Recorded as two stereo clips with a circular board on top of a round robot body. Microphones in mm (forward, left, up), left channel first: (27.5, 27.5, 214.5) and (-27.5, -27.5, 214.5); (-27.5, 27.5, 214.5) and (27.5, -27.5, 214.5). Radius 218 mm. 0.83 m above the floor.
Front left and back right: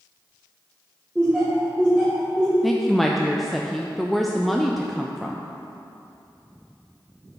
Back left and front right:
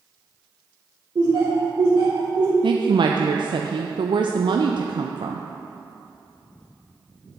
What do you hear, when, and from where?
1.1 s laughter: 65° right, 2.0 m
2.6 s a woman speaking: 45° right, 0.5 m